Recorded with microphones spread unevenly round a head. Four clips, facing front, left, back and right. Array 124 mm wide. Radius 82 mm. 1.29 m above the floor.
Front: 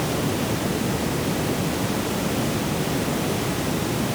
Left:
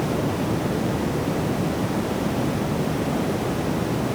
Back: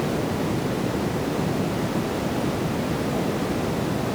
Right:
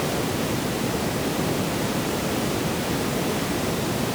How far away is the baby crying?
I don't hear a baby crying.